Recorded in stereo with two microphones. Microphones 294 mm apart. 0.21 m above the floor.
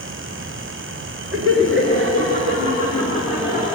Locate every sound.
1.3 s laughter: 50° right (ahead or behind), 2 m; by 3.7 s 15° right (ahead or behind), 3 m